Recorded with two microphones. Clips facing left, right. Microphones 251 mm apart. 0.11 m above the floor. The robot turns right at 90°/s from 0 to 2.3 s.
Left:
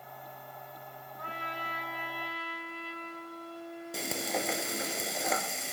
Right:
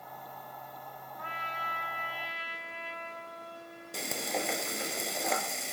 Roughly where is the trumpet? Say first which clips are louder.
Left 3 dB; ahead left.